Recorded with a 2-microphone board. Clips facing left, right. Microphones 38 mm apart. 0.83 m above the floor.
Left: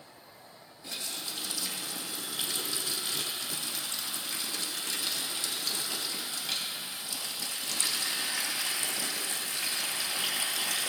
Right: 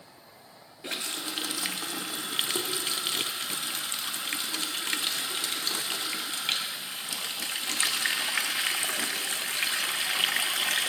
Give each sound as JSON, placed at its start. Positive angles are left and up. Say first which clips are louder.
{"t": 0.8, "sound": "a running tap", "louder": "right 5 dB", "side_deg": -55, "distance_m": 0.6}